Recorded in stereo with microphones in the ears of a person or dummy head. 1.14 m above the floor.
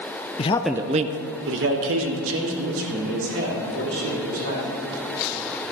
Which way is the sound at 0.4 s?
35° left (ahead or behind).